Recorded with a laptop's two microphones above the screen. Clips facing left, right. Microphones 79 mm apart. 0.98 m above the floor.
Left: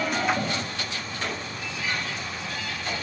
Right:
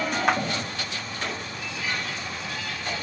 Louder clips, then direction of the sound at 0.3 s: Right 4 dB; 70° right (ahead or behind).